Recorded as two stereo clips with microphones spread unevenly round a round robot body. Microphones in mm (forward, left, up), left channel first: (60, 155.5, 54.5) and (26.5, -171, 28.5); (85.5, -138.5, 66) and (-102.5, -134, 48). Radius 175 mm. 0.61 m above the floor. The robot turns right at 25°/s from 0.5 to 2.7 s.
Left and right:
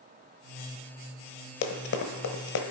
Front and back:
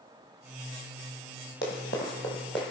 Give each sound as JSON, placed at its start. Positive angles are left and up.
{"t": 1.6, "sound": "running footsteps", "azimuth_deg": 55, "distance_m": 0.8}